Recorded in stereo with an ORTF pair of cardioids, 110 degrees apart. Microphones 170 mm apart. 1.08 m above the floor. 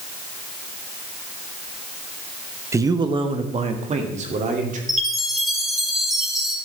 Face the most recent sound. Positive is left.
turn(degrees=0)